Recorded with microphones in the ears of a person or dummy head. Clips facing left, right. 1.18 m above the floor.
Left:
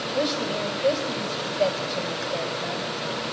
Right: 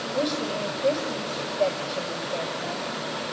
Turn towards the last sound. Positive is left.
turn(degrees=5)  # may be behind; listen again after turning